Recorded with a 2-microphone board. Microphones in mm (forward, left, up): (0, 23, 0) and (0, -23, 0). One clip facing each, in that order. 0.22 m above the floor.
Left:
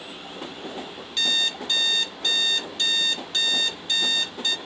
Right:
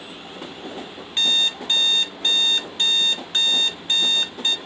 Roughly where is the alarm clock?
Right.